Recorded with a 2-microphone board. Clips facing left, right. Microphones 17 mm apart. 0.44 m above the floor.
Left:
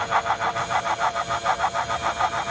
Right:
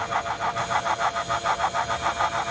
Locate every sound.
Only background noise.